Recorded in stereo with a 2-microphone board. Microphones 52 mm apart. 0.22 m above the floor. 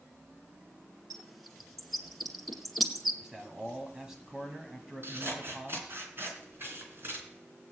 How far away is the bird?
About 1.8 m.